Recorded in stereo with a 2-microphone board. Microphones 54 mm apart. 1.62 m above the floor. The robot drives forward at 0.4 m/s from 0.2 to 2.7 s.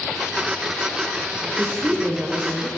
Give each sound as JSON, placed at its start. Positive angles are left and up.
{"t": 1.6, "sound": "a woman speaking", "side_deg": -45, "distance_m": 0.9}